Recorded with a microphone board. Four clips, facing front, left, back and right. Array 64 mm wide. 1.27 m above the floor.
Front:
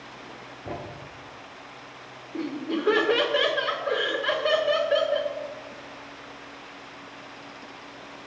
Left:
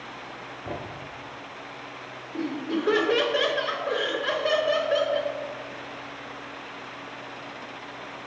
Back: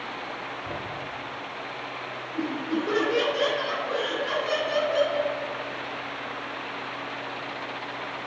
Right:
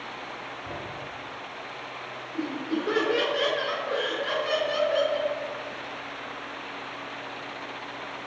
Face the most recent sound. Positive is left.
turn(degrees=20)